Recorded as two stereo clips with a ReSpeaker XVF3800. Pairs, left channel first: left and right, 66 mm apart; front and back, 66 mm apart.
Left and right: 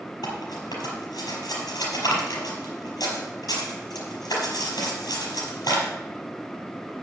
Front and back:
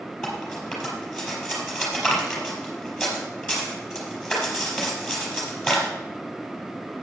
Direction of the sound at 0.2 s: 90° left.